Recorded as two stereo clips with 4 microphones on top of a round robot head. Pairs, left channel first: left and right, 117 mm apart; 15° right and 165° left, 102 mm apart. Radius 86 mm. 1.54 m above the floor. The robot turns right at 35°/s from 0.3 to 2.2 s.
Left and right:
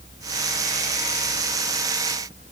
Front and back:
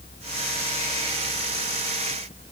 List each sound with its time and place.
Only background noise.